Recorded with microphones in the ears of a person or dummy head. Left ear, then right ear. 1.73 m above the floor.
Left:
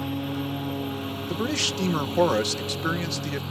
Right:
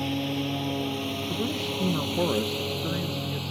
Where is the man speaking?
75° left (ahead or behind).